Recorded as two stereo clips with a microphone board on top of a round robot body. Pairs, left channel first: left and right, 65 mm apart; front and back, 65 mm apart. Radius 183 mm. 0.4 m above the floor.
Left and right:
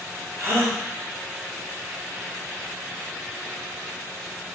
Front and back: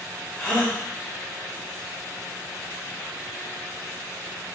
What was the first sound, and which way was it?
A gasp, 60° right.